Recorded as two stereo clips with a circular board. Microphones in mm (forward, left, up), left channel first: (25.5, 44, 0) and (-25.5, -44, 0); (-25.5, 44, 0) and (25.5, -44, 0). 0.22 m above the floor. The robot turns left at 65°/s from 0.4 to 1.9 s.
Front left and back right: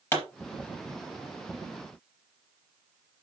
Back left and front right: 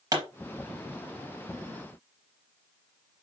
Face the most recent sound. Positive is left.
turn(degrees=-105)